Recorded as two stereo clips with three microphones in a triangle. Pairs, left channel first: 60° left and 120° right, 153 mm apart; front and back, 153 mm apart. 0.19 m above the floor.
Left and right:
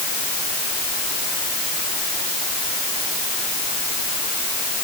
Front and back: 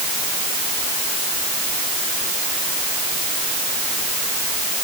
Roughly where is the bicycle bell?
No bicycle bell in this recording.